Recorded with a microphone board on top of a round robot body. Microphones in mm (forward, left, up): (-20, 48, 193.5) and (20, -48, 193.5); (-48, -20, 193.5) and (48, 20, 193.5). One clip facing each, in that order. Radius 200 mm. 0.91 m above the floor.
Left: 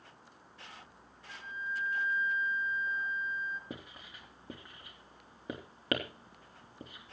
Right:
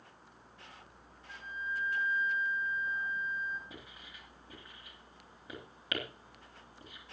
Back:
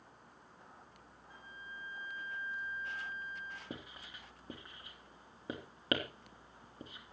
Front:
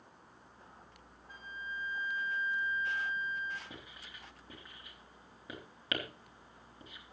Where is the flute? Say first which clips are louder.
Even, front 8 dB; 15° left, 1.0 m.